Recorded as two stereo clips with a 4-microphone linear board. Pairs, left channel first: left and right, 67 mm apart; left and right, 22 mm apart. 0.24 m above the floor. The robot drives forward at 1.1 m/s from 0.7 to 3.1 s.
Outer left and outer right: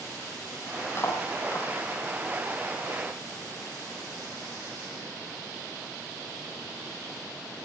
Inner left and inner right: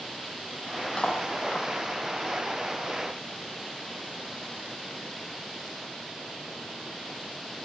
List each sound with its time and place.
1.0 s cutlery clinking: 40° left (ahead or behind), 5.5 m; by 1.7 s 45° left (ahead or behind), 5 m